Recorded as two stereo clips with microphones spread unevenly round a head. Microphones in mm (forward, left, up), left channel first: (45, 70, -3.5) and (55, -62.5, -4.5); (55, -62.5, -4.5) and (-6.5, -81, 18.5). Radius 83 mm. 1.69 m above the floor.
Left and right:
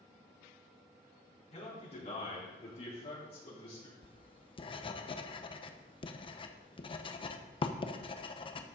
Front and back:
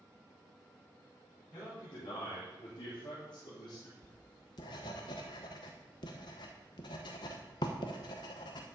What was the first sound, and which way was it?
A man speaking, 55° left.